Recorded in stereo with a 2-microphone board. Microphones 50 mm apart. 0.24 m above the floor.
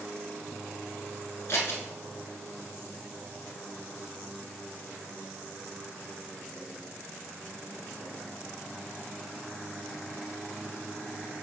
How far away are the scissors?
About 1.2 m.